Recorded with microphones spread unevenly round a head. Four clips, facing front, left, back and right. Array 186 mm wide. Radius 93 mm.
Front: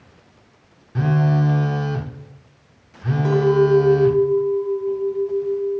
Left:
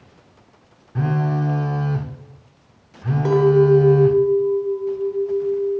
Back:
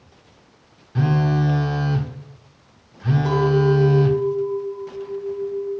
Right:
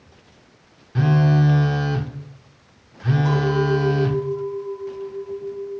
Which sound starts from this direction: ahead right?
A phone buzzing, at 0.9 s.